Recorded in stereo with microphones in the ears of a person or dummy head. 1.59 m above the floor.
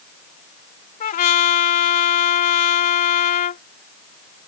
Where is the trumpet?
55° left (ahead or behind).